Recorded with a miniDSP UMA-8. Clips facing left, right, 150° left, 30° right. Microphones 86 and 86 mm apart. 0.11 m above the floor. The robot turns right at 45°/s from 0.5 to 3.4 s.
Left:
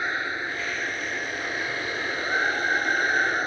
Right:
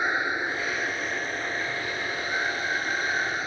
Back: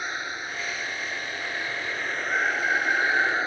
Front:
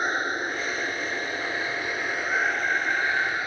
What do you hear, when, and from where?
0.0 s running water: 25° right, 0.8 m; by 3.5 s 105° left, 0.8 m